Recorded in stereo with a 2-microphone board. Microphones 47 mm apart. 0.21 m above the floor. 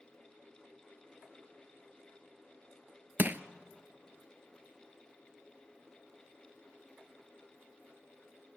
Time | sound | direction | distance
3.2 | crushing | 40° right (ahead or behind) | 0.5 m